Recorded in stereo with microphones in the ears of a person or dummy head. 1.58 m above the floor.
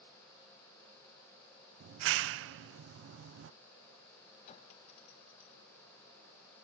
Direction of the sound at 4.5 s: 45° left (ahead or behind).